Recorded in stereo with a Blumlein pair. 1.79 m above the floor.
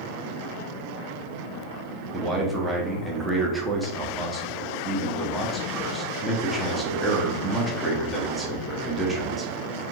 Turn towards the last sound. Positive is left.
turn(degrees=-5)